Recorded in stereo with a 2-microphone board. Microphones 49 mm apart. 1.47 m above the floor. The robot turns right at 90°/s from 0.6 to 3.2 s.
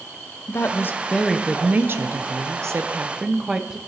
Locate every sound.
0.5 s a woman speaking: 110° left, 0.6 m; by 3.8 s 20° right, 0.6 m